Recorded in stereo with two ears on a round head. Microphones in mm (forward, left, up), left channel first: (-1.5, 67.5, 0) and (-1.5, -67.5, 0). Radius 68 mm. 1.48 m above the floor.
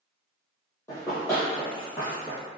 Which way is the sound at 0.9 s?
20° left (ahead or behind).